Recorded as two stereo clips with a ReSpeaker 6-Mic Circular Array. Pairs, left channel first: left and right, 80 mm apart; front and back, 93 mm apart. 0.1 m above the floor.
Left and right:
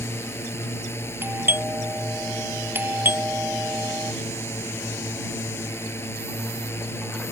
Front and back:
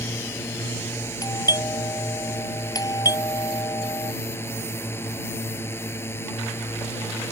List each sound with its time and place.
0.0 s a drone: 50° left
1.2 s a doorbell: 35° right